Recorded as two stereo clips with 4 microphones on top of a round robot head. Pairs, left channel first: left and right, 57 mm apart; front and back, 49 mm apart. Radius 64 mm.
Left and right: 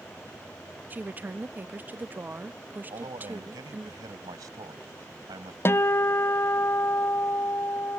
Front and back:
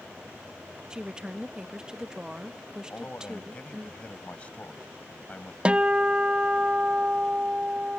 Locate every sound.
0.9 s a woman speaking: 120° right
2.9 s a man speaking: 70° right
5.7 s a guitar: 115° left